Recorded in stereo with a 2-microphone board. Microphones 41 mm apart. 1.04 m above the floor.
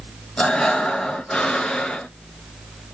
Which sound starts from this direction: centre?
Breathing, at 0.4 s.